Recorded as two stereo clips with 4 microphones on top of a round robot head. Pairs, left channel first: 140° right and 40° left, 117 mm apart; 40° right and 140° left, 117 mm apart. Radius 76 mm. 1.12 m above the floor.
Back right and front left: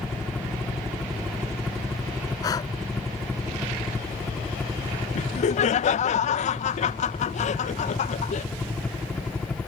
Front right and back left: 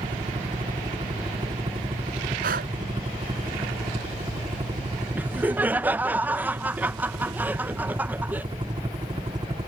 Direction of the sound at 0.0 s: 120° left.